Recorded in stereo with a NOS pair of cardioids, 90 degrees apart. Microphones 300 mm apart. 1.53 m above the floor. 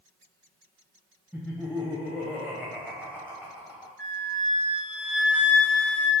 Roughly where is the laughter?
Ahead.